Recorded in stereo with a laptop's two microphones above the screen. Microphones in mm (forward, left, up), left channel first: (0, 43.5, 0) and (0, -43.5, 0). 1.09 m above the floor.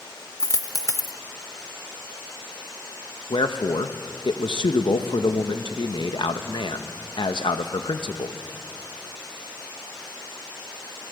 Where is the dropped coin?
40° left (ahead or behind), 0.9 m.